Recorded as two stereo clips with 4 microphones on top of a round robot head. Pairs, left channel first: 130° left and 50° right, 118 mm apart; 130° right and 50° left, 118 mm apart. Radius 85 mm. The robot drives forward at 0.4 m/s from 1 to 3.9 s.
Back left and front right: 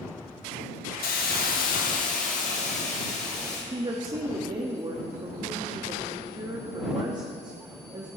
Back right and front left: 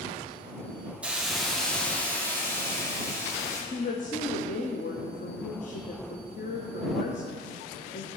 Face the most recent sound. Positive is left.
turn(degrees=-110)